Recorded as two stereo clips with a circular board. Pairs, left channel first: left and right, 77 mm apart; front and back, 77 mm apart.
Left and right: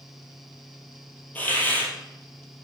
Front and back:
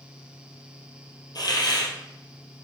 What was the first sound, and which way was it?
A hiss, 25° left.